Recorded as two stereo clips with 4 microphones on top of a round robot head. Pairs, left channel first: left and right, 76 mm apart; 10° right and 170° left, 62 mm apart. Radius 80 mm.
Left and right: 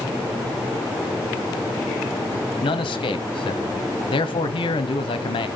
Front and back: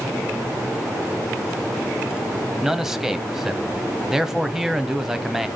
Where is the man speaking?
85° left, 1.2 m.